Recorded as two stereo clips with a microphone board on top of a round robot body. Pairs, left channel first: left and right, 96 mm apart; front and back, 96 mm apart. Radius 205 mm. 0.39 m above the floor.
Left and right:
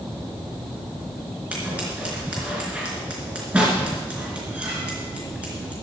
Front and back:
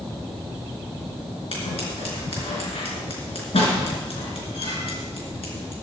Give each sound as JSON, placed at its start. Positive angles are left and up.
{"t": 1.5, "sound": "scissors", "azimuth_deg": -15, "distance_m": 4.0}